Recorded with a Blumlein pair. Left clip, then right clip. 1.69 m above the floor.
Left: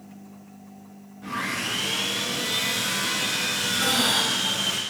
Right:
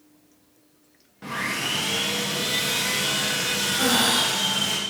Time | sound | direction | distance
1.2 | sawing | 65° right | 2.5 m
3.8 | breathing | 50° right | 4 m